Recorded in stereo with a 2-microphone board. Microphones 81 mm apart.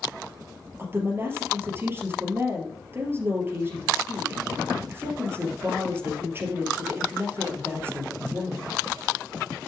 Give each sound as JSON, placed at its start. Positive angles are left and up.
{"t": 0.8, "sound": "a woman speaking", "side_deg": -30, "distance_m": 2.5}